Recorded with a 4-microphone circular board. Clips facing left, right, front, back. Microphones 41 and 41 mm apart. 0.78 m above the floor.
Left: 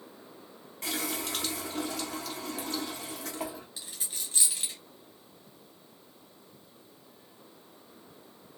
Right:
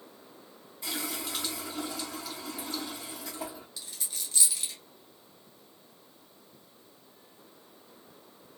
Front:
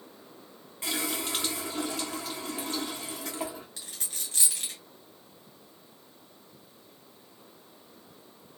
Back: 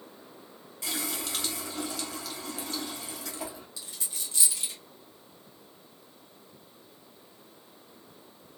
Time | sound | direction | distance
0.8 | a running tap | 60° left | 1.3 m
3.8 | a dropped coin | 35° left | 1.6 m